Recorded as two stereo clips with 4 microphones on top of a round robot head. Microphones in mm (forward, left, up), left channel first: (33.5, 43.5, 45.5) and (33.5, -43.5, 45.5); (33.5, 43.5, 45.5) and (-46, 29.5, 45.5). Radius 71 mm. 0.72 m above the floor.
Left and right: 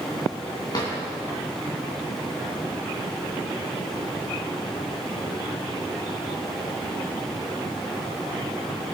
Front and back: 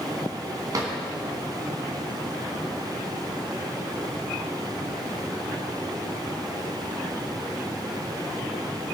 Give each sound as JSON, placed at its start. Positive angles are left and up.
{"t": 0.7, "sound": "a drawer", "azimuth_deg": 150, "distance_m": 2.0}